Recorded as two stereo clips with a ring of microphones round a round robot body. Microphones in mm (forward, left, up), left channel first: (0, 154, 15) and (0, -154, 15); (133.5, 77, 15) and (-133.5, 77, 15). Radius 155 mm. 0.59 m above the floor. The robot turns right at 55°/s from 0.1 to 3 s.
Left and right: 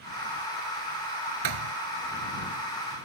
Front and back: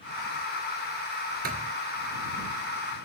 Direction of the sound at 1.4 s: 115° right.